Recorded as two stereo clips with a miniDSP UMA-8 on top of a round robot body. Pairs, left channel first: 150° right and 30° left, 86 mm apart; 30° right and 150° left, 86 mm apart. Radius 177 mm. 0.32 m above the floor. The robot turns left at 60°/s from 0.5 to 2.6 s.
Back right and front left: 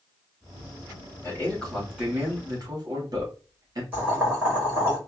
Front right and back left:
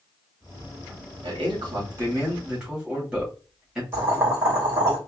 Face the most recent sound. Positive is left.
turn(degrees=90)